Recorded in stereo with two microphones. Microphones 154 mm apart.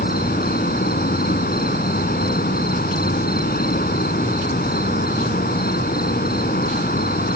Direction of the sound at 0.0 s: 85° left.